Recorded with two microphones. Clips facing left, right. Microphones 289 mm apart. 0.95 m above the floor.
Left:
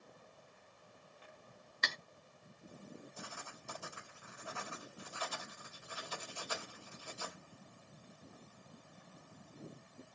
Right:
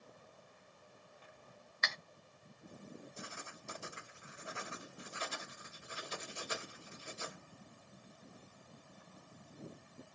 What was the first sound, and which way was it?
Cutlery clinking, 40° left (ahead or behind).